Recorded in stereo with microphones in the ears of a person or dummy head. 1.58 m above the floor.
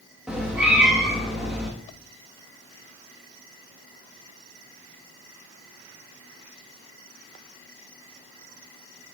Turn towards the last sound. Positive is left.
turn(degrees=-5)  # may be behind; listen again after turning